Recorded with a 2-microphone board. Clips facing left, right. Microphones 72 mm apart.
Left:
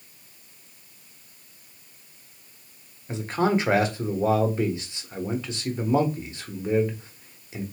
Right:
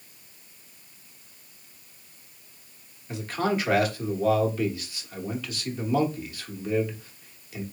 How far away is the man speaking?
About 1.1 m.